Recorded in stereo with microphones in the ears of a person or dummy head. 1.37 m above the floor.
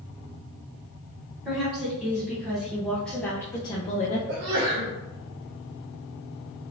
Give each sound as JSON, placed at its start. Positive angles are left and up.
{"t": 1.4, "sound": "a woman speaking", "side_deg": -10, "distance_m": 1.9}
{"t": 4.3, "sound": "a sneeze", "side_deg": -80, "distance_m": 1.0}